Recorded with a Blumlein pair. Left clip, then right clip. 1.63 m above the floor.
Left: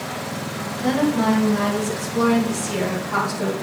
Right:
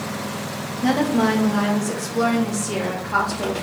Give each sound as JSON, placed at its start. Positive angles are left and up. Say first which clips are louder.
{"t": 0.8, "sound": "a woman speaking", "louder": "right 1 dB", "azimuth_deg": -20, "distance_m": 1.5}